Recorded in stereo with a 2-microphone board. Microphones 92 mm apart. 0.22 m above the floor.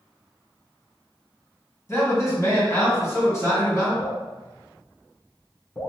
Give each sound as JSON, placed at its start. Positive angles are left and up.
{"t": 1.9, "sound": "a man speaking", "side_deg": 30, "distance_m": 1.9}
{"t": 4.0, "sound": "dripping", "side_deg": 45, "distance_m": 1.8}